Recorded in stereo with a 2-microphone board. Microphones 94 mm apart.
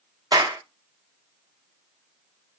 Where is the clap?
45° right (ahead or behind), 1.1 m.